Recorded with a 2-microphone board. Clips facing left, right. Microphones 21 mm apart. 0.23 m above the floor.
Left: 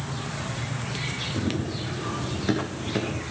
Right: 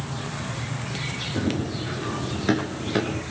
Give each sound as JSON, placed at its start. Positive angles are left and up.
{"t": 1.4, "sound": "running footsteps", "side_deg": -15, "distance_m": 5.5}